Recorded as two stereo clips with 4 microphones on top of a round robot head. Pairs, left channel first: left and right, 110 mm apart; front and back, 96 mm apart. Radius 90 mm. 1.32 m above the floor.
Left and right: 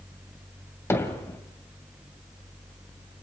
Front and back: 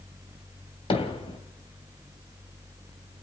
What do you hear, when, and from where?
0.9 s hammering: 25° left, 3 m